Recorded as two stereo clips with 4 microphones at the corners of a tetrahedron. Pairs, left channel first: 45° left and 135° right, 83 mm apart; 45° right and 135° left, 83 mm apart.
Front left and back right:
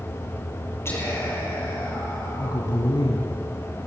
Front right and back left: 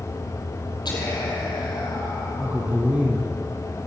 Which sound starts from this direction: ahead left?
A man speaking, at 2.4 s.